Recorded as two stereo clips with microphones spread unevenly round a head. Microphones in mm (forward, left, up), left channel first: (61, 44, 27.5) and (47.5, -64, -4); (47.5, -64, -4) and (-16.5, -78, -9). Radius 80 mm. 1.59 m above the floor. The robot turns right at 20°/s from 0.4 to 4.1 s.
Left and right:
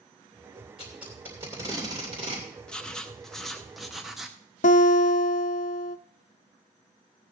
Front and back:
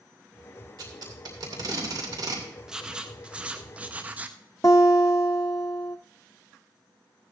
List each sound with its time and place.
0.8 s tape being pulled: 170° left, 2.5 m; by 2.5 s 160° right, 2.5 m
2.7 s writing: 115° left, 0.6 m; by 4.4 s 145° left, 0.6 m
4.6 s a guitar: 80° left, 0.6 m